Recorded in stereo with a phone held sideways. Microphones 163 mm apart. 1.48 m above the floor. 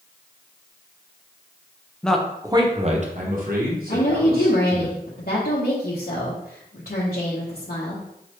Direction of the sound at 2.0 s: 5° left (ahead or behind).